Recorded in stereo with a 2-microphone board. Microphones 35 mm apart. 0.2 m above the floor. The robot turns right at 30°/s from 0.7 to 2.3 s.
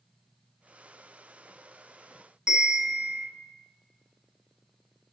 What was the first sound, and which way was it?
A bell, 15° right (ahead or behind).